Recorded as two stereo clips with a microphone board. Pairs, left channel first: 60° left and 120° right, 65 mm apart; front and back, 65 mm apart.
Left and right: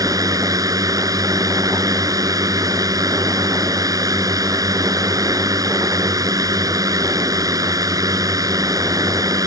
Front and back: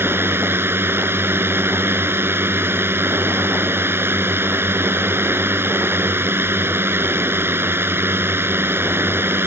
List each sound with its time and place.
0.0 s a drone: 130° right